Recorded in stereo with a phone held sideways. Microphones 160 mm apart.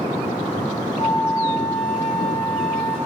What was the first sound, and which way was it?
A flute, 35° left (ahead or behind).